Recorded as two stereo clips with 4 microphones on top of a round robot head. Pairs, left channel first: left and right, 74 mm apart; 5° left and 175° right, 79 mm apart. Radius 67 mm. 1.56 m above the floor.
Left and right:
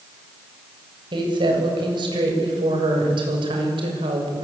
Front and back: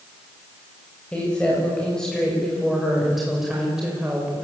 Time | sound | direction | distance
1.1 | a woman speaking | 75° right | 7.5 m